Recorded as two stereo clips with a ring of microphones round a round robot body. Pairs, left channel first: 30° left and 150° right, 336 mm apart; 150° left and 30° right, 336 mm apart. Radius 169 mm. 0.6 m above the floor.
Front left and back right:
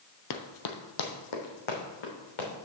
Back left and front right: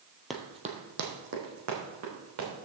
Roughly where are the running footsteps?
Ahead left.